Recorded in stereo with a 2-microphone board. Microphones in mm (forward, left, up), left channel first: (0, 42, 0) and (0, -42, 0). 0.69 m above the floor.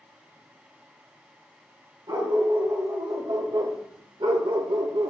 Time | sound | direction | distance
2.1 | a dog barking | 50° right (ahead or behind) | 2.0 m